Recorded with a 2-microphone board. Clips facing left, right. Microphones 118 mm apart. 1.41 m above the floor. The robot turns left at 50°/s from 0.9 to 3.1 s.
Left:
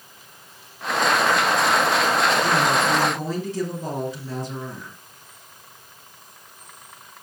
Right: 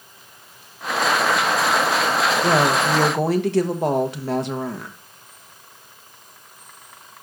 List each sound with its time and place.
2.4 s a woman speaking: 75° right, 1.2 m; by 5.0 s 110° right, 1.2 m